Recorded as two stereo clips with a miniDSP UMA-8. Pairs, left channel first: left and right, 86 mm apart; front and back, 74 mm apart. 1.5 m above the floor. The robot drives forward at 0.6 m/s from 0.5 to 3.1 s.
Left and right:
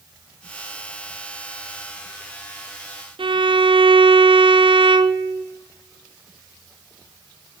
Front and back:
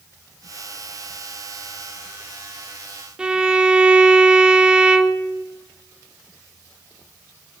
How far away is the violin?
About 0.6 m.